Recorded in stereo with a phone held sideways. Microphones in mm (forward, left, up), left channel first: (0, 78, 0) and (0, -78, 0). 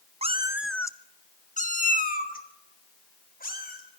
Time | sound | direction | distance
0.2 | a cat meowing | 40° right (ahead or behind) | 0.8 m